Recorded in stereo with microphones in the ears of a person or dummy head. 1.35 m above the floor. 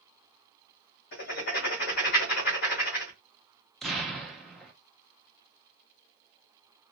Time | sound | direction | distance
1.1 | writing | 50° left (ahead or behind) | 1.9 m
3.8 | an explosion | centre (ahead or behind) | 0.7 m